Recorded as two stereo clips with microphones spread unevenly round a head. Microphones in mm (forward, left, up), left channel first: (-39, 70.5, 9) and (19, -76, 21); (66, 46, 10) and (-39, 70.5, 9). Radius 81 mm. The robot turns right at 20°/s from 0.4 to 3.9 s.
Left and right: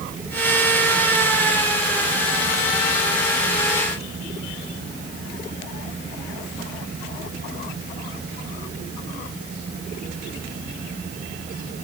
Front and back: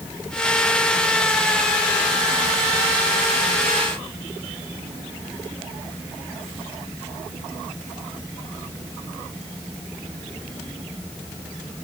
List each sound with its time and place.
Only background noise.